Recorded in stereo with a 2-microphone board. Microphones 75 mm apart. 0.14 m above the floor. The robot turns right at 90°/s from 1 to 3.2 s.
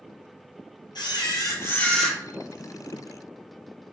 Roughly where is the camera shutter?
Left.